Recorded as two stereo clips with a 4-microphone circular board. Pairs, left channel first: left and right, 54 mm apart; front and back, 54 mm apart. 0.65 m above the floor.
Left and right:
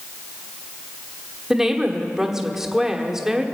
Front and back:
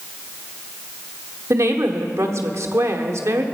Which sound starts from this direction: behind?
A woman speaking, at 1.5 s.